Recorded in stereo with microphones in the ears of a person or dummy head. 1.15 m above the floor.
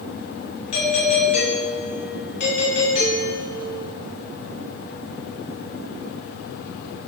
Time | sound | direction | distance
0.7 | a doorbell | 55° left (ahead or behind) | 5 m